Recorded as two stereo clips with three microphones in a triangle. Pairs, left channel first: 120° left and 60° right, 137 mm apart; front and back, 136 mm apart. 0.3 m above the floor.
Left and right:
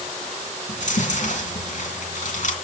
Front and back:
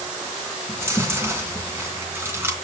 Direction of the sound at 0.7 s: 110° left.